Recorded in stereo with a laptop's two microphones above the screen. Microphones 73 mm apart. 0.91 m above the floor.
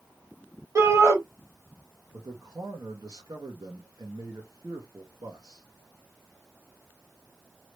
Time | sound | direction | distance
0.8 | a shout | 45° right (ahead or behind) | 1.6 m
2.1 | a man speaking | 60° right (ahead or behind) | 0.9 m